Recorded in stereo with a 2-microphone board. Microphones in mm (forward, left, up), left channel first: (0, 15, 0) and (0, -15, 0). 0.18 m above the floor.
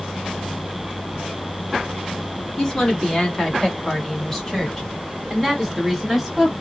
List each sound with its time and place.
2.6 s a woman speaking: 15° left (ahead or behind), 1.8 m; by 6.5 s centre (ahead or behind), 1.6 m